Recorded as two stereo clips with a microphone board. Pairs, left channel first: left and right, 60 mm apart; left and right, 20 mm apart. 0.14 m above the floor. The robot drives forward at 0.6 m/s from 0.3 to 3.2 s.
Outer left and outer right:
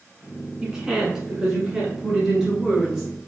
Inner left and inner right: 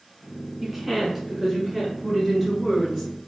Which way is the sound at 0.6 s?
10° right (ahead or behind).